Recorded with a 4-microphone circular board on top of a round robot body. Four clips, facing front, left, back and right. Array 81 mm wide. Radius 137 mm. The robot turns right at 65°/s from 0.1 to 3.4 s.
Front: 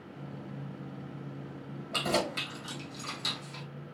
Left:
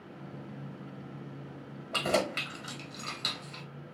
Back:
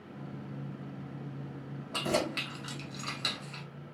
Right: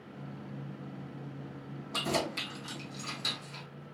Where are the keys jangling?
80° left, 2 m; by 3.6 s 175° left, 2 m.